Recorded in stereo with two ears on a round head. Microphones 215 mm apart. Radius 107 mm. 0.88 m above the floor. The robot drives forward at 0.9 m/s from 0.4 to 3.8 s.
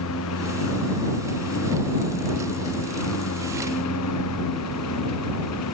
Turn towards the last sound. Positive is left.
turn(degrees=75)  # may be behind; listen again after turning